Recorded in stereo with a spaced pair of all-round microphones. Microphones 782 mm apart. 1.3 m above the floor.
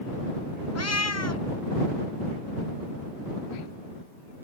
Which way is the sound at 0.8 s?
20° left (ahead or behind).